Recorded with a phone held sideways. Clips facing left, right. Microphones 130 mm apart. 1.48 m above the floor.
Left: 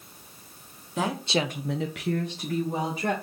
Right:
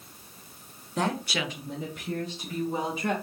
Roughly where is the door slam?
No door slam in this recording.